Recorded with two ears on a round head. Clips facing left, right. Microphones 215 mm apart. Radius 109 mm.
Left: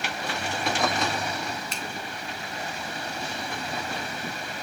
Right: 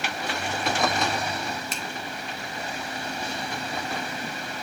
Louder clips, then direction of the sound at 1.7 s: Right 1 dB; 80° right.